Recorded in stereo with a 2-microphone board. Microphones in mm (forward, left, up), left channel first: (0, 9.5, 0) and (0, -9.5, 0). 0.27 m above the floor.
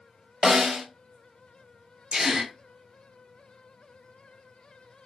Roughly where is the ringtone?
No ringtone in this recording.